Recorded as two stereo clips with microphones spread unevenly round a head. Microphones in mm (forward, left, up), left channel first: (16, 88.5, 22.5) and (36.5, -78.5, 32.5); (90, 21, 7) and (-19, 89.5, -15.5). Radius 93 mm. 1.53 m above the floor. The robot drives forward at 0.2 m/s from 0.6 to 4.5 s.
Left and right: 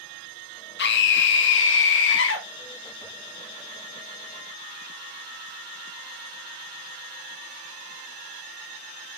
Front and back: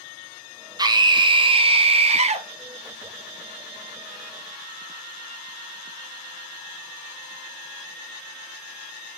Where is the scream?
85° left, 0.7 m; by 2.5 s 115° left, 0.8 m.